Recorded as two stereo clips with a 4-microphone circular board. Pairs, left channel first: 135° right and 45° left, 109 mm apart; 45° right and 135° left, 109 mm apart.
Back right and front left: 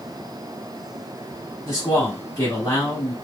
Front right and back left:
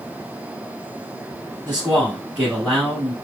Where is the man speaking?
155° right, 1.2 m.